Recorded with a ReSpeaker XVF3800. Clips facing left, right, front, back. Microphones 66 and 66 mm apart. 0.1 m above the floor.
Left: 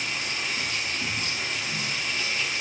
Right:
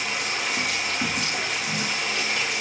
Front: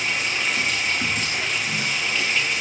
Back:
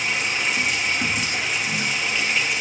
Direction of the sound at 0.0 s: 95° right.